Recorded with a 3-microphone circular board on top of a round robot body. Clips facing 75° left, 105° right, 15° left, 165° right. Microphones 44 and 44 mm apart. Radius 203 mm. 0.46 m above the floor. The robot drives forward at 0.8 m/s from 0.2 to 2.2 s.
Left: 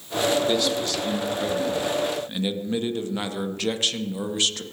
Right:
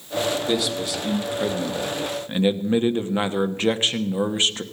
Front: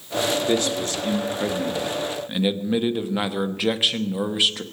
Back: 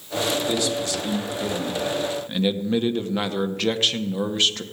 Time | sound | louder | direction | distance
0.5 | a man speaking | even, front 2 dB | 20° right | 2.5 m